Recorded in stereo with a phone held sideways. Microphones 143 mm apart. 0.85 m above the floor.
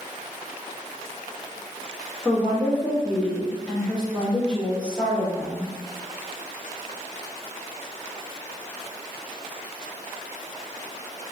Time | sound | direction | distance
2.2 | a woman speaking | 10° left (ahead or behind) | 1.3 m